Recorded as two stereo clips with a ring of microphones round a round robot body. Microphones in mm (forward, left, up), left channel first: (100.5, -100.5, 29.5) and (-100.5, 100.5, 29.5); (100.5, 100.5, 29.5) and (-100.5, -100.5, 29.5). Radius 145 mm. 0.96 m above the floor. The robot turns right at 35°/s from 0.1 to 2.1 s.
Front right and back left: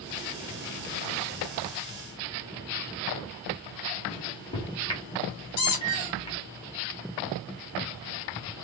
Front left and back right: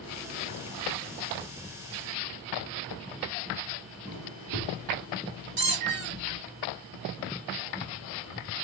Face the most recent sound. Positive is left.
turn(degrees=-85)